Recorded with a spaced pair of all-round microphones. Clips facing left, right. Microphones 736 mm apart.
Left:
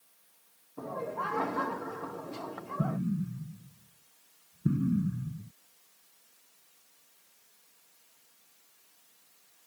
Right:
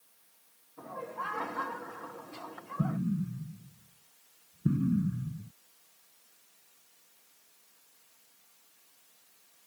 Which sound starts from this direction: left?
Laughter, at 0.8 s.